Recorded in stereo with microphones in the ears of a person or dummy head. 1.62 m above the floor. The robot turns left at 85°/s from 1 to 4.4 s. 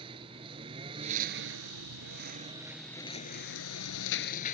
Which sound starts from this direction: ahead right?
A lawn mower, at 0.0 s.